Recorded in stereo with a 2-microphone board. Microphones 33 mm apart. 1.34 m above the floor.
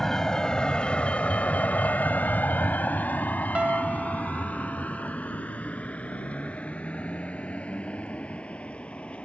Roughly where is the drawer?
I don't hear a drawer.